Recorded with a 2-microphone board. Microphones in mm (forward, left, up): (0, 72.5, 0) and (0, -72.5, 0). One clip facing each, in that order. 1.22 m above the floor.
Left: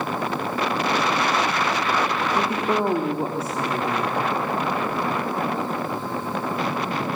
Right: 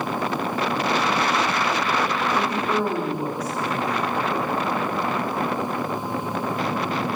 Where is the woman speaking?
25° left (ahead or behind), 3 m.